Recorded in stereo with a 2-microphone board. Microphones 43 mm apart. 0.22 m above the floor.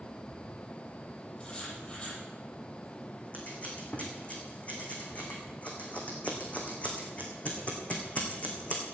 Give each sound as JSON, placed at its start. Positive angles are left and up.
{"t": 1.4, "sound": "writing", "side_deg": 25, "distance_m": 7.5}
{"t": 3.3, "sound": "scissors", "side_deg": 35, "distance_m": 3.0}